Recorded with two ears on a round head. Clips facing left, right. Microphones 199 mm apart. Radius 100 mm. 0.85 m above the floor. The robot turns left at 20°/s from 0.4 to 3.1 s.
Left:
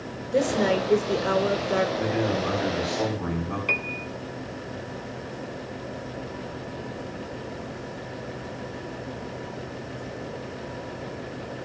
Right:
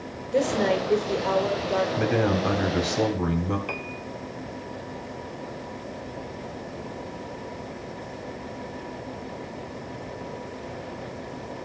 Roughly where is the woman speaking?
Centre.